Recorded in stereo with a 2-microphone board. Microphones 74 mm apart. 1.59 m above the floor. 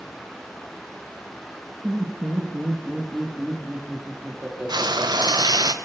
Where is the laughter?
20° right (ahead or behind), 2.0 m; by 5.7 s 15° right (ahead or behind), 4 m.